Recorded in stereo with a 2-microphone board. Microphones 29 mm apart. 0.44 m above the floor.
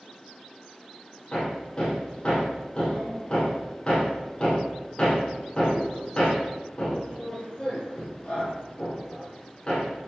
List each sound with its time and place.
1.3 s hammering: 35° left (ahead or behind), 5 m